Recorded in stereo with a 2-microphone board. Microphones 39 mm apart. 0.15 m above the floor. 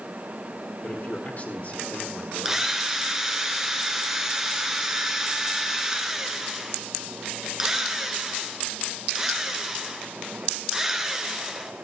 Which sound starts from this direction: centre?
A drill, at 2.5 s.